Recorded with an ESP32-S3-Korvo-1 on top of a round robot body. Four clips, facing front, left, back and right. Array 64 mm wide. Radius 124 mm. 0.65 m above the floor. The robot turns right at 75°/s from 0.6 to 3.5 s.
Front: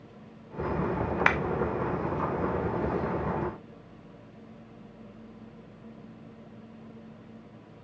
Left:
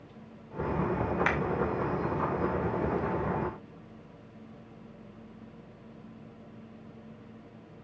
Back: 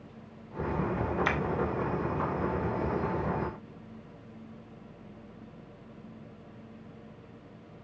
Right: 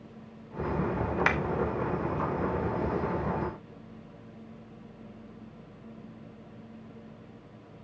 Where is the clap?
10° right, 1.9 m; by 1.4 s straight ahead, 1.9 m.